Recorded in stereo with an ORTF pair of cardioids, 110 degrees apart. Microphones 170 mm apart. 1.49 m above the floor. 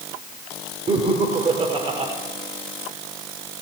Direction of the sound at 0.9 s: 35° right.